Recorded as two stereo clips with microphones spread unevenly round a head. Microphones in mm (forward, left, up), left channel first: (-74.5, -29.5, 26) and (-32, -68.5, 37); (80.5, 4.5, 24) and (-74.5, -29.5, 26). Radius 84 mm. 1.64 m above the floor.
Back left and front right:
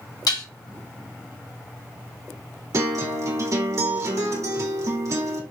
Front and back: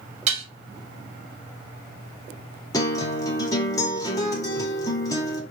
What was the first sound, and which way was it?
Dishes clattering, 140° left.